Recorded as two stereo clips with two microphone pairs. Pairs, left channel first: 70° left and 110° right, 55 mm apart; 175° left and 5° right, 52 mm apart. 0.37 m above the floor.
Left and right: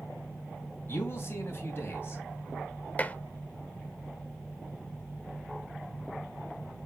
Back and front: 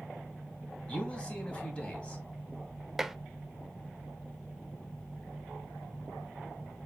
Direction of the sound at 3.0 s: 90° left.